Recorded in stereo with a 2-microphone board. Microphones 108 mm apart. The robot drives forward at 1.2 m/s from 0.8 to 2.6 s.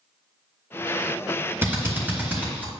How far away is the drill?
About 3 m.